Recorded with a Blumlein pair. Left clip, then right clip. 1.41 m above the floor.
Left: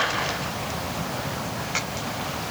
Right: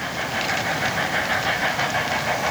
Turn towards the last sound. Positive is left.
No sound to turn to.